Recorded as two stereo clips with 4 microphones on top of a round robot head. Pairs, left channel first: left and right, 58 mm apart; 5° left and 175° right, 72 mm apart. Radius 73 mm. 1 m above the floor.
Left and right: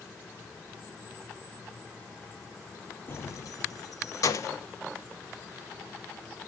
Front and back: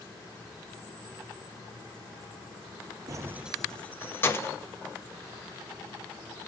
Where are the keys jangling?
145° left, 0.5 m; by 4.6 s 55° left, 1.2 m.